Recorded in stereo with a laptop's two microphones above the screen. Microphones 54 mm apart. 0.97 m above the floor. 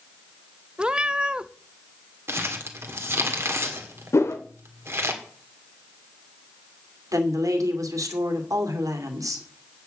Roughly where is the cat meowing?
Centre.